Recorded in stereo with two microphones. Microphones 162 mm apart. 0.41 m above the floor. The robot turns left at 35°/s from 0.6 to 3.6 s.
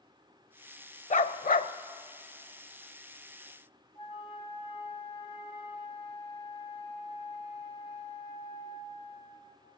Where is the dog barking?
50° left (ahead or behind), 0.5 m; by 1.7 s 70° left (ahead or behind), 0.5 m.